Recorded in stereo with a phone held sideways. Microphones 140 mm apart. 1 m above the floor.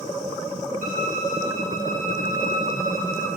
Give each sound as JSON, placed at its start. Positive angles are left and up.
{"t": 0.8, "sound": "a violin", "side_deg": -65, "distance_m": 1.5}